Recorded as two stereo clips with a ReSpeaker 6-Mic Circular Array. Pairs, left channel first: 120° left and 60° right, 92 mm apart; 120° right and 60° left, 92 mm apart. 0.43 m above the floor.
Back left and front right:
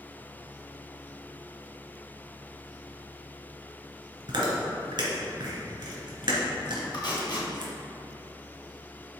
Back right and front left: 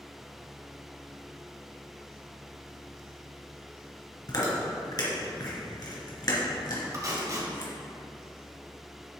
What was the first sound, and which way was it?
Chewing, 90° right.